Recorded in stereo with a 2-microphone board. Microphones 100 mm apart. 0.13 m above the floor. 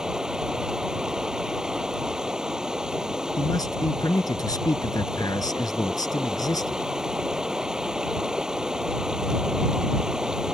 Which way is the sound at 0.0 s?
5° right (ahead or behind).